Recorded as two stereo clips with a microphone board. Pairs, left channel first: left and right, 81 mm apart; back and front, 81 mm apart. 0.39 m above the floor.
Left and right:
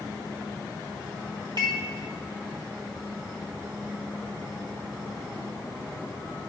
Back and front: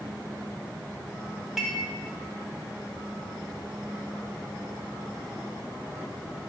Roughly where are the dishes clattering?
Right.